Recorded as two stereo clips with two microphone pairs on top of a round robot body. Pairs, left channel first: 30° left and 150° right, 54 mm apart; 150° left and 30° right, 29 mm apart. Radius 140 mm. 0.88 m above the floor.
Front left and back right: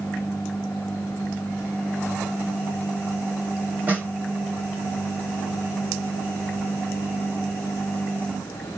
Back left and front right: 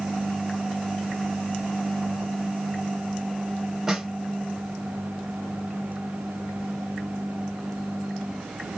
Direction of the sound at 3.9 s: 90° right.